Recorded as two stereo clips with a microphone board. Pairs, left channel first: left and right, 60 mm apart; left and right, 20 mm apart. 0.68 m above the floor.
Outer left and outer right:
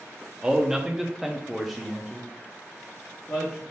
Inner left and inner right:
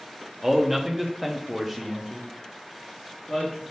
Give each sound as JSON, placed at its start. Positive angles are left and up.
{"t": 0.4, "sound": "a man speaking", "side_deg": -10, "distance_m": 0.8}